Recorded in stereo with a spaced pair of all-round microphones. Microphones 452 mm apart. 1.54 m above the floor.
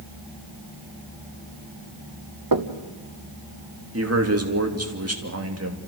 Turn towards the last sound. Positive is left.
turn(degrees=-30)  # may be behind; listen again after turning